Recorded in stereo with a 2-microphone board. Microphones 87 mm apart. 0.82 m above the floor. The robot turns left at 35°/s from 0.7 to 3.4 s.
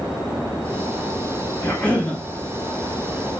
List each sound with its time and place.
1.6 s a cough: 25° left (ahead or behind), 1.1 m; by 2.2 s 10° left (ahead or behind), 1.1 m